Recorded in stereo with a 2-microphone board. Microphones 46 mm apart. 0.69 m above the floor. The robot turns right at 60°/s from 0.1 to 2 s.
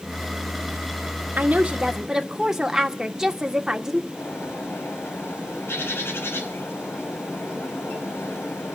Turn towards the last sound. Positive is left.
turn(degrees=75)  # may be behind; listen again after turning